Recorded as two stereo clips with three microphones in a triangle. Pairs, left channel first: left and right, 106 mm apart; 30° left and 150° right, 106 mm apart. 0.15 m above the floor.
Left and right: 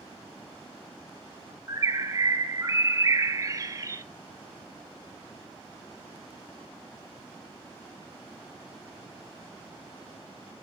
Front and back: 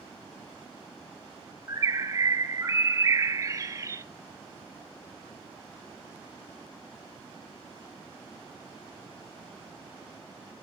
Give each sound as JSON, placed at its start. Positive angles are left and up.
{"t": 1.7, "sound": "a bird", "azimuth_deg": -120, "distance_m": 0.5}